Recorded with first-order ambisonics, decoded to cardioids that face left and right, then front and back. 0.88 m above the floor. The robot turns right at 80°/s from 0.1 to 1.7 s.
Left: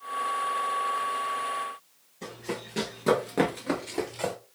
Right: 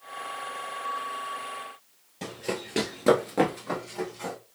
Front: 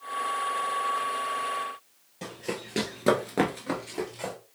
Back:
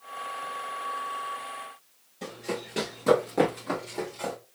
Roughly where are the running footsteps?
Ahead right.